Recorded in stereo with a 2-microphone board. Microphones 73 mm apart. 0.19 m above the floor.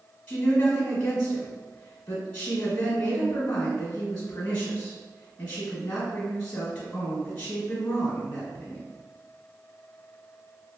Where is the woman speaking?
25° left (ahead or behind), 1.2 m.